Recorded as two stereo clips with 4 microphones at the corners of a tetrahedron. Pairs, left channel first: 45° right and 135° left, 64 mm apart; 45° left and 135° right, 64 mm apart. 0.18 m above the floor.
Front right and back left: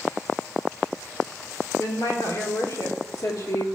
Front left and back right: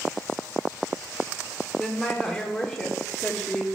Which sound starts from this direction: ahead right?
A woman speaking, at 1.8 s.